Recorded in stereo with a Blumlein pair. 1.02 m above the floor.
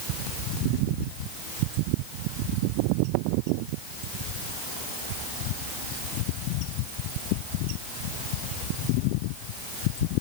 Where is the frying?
I don't hear frying.